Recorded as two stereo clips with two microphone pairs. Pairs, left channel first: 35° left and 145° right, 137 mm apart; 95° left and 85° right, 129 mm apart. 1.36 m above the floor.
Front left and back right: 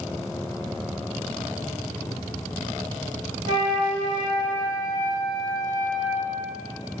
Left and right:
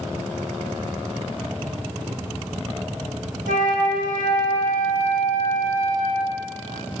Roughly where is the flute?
Right.